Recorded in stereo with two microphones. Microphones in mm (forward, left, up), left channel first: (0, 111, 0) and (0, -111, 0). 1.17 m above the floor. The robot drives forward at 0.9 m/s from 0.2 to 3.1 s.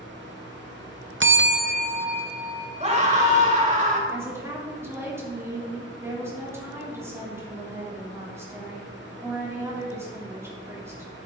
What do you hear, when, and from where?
1.2 s a bell: 60° right (ahead or behind), 0.6 m; by 2.8 s 20° right (ahead or behind), 1.6 m
2.8 s a scream: 30° right (ahead or behind), 3 m; by 4.0 s 35° right (ahead or behind), 2.5 m
4.1 s a woman speaking: 10° right (ahead or behind), 3 m